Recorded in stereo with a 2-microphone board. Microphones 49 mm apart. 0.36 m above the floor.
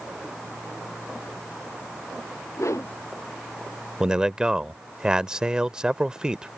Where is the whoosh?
80° left.